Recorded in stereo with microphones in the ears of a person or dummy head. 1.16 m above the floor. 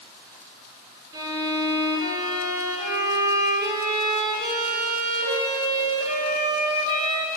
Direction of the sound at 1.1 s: 25° right (ahead or behind).